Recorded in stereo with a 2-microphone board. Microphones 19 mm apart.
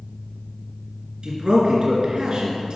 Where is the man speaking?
45° right (ahead or behind), 2.5 m.